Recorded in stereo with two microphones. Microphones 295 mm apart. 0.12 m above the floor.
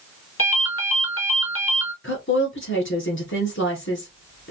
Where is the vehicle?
No vehicle in this recording.